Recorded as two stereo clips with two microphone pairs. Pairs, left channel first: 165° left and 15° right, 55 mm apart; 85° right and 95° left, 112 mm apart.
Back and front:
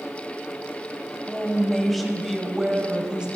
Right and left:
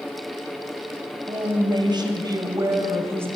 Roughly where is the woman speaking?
Left.